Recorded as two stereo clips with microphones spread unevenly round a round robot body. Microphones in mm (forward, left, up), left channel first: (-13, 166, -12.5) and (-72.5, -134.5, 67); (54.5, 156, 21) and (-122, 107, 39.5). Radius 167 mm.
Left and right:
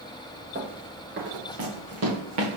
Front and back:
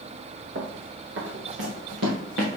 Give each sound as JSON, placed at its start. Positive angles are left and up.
{"t": 0.6, "sound": "running footsteps", "azimuth_deg": -160, "distance_m": 3.0}